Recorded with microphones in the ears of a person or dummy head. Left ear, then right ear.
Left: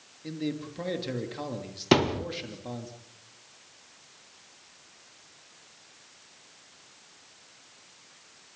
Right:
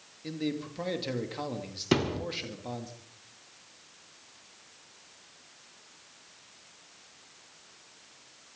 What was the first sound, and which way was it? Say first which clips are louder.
A man speaking: even; 15° right (ahead or behind).